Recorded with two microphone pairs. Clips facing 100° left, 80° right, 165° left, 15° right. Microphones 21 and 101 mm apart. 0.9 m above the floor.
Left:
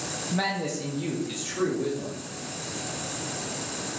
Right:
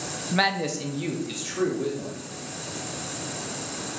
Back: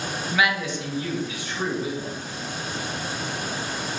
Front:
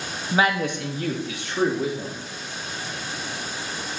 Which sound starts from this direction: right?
A man speaking, at 0.3 s.